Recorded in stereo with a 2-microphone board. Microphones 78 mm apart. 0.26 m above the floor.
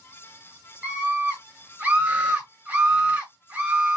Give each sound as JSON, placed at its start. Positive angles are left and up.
{"t": 0.8, "sound": "a scream", "side_deg": -20, "distance_m": 1.2}